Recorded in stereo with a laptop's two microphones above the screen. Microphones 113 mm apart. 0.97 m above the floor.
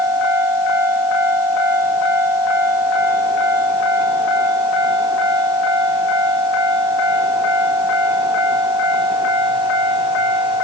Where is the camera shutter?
I don't hear a camera shutter.